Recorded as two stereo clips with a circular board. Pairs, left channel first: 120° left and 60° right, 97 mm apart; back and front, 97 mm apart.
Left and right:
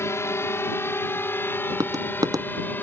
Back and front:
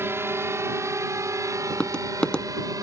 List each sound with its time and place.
0.0 s a drone: 60° left; by 2.8 s 50° left
1.7 s tapping: 100° right